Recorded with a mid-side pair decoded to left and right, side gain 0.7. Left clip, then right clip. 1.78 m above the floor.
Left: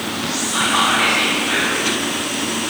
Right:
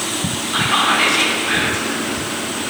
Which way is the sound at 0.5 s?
30° right.